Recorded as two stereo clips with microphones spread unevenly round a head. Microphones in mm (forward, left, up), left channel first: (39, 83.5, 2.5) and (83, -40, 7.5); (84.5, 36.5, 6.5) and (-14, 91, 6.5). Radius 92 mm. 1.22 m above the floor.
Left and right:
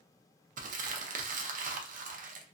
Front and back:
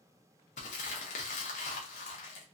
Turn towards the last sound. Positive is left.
turn(degrees=-60)